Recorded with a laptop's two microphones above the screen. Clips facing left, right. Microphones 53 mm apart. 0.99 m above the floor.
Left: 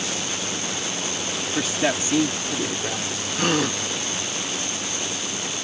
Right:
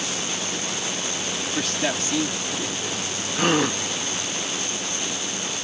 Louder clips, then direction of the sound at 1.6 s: Left 3 dB; 10° left (ahead or behind).